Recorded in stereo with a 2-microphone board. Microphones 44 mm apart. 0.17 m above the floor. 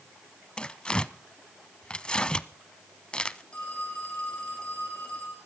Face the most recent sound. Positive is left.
turn(degrees=20)  # may be behind; listen again after turning